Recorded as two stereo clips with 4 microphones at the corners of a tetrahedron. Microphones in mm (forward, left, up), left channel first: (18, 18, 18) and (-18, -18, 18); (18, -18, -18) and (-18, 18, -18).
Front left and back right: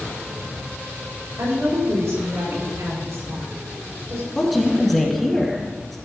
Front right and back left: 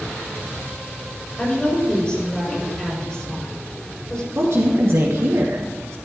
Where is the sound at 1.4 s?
115° right, 6 m.